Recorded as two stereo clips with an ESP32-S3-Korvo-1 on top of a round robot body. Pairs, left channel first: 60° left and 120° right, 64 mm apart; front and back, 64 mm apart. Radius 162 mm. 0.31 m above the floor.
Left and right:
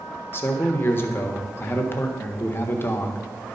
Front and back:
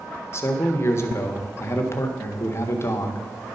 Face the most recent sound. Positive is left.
turn(degrees=25)